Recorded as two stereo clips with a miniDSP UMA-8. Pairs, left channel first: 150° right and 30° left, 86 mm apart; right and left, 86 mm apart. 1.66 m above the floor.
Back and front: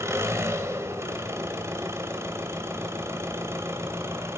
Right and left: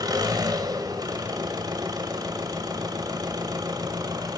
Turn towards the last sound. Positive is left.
turn(degrees=80)